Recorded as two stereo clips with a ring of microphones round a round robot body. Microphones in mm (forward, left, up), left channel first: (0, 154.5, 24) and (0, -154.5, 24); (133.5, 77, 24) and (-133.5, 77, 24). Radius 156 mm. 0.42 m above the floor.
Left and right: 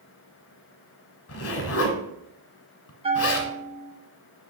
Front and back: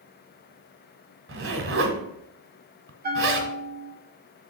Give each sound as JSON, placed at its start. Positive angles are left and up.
{"t": 1.3, "sound": "a zipper", "azimuth_deg": 135, "distance_m": 1.3}
{"t": 3.0, "sound": "a bell", "azimuth_deg": -150, "distance_m": 1.2}